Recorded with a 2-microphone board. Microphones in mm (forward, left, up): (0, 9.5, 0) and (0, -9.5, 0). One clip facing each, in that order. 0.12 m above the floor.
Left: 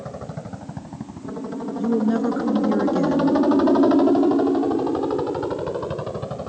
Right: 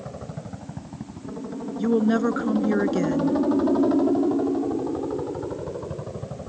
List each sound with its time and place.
0.0 s a helicopter: 15° left (ahead or behind); by 6.5 s 50° left (ahead or behind)
1.8 s a woman speaking: 30° right (ahead or behind)